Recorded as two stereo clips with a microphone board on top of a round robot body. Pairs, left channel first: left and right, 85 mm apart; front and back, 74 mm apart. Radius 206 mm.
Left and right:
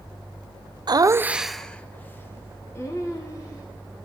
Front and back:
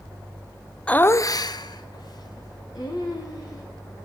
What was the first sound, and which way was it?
Laughter, 75° right.